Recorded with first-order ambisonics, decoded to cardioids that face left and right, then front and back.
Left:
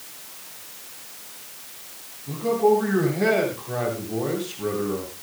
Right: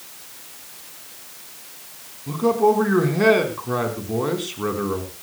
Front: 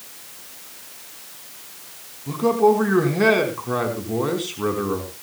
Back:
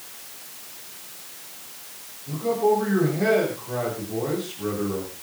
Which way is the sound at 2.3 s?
40° right.